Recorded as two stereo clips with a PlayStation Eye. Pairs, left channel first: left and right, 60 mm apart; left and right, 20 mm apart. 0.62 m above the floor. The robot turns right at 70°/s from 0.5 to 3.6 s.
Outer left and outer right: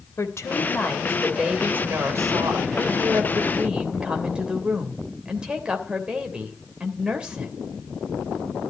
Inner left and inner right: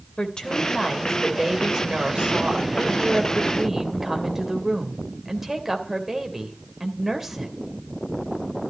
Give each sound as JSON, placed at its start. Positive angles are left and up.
{"t": 0.2, "sound": "a woman speaking", "azimuth_deg": 125, "distance_m": 3.0}